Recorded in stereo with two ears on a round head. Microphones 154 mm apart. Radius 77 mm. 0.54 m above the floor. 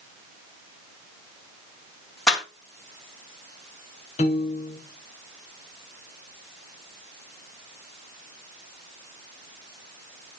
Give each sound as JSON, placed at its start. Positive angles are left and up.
{"t": 2.3, "sound": "a clap", "side_deg": 5, "distance_m": 2.5}
{"t": 4.2, "sound": "a piano", "side_deg": 35, "distance_m": 1.3}